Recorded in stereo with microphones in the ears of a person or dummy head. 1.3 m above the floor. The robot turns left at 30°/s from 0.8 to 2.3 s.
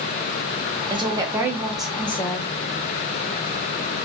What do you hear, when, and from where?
0.9 s a woman speaking: 155° right, 0.6 m; by 2.5 s 165° left, 0.6 m